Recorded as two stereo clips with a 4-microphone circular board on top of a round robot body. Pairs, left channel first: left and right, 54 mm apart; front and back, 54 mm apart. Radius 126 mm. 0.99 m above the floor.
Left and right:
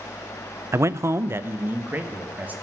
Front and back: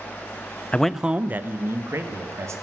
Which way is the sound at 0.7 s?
65° right.